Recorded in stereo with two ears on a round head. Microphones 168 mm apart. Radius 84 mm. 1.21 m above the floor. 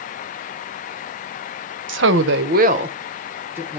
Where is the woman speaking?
70° right (ahead or behind), 0.6 m; by 3.8 s 10° right (ahead or behind), 1.0 m.